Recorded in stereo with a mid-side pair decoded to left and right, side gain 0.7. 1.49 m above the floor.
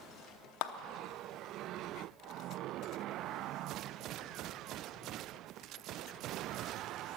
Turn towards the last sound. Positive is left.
turn(degrees=65)